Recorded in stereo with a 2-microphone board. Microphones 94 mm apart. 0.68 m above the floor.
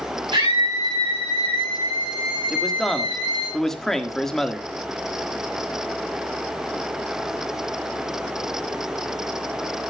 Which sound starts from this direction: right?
A scream, at 0.3 s.